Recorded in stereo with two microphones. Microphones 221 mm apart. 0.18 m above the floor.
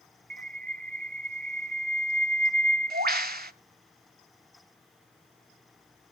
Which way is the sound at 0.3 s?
45° right (ahead or behind).